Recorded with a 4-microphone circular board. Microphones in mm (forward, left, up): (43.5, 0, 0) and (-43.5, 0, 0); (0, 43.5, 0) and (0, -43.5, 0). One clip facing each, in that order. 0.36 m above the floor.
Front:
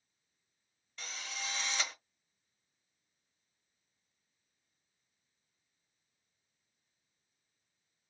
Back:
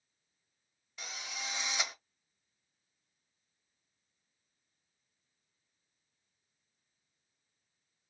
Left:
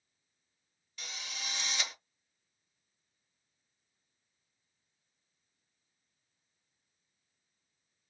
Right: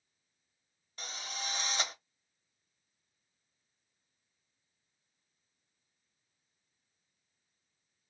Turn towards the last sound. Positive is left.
turn(degrees=-105)